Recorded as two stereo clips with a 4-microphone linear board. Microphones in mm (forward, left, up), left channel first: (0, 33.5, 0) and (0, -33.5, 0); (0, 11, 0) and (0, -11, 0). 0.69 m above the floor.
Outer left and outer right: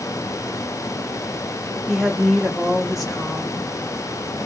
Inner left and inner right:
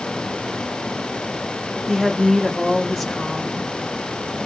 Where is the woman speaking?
10° right (ahead or behind), 1.4 m.